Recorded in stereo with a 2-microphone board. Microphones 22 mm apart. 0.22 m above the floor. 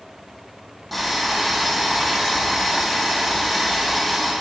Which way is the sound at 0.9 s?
5° left (ahead or behind).